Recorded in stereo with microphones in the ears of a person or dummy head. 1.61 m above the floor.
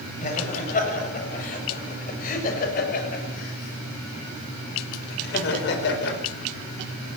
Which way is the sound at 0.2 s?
40° left (ahead or behind).